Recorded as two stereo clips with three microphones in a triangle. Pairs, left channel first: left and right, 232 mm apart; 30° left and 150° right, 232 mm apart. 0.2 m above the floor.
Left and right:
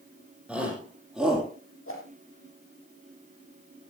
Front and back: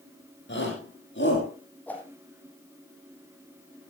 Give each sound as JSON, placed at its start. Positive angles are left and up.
{"t": 0.5, "sound": "a shout", "azimuth_deg": -5, "distance_m": 8.0}
{"t": 1.9, "sound": "a whoosh", "azimuth_deg": 115, "distance_m": 3.0}